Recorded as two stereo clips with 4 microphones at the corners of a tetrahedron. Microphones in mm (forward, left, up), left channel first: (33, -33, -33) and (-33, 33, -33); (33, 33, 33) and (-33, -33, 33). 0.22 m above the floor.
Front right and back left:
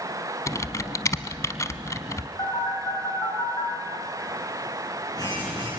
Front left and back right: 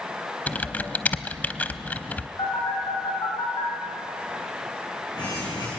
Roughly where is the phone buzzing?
Ahead.